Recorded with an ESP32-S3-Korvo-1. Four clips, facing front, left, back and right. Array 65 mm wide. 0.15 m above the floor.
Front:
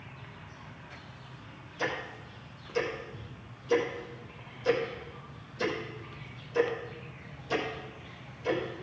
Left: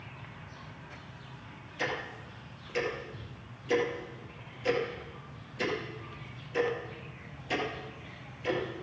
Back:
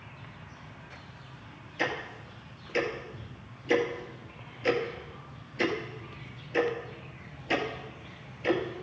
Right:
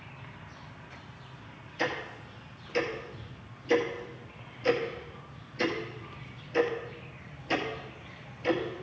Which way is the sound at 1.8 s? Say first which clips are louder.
Right 2 dB, back 2 dB; 170° right.